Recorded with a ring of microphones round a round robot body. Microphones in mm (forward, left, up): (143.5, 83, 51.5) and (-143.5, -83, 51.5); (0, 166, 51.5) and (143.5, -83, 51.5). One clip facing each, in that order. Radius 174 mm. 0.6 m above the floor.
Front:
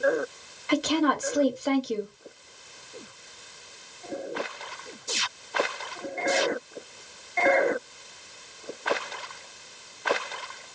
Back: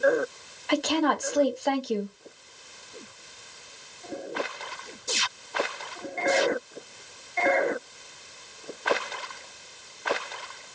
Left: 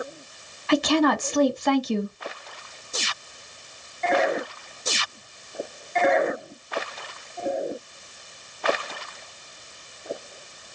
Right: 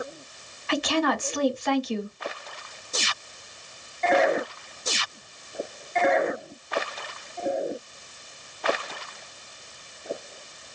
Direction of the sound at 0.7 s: 110° left.